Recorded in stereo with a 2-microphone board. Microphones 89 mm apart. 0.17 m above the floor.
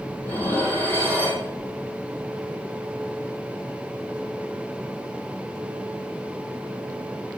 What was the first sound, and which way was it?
Dishes clattering, 20° left (ahead or behind).